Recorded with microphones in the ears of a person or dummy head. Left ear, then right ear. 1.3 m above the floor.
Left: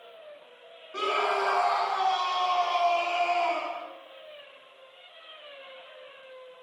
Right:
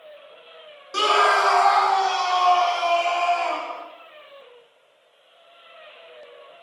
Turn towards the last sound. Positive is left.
turn(degrees=-60)  # may be behind; listen again after turning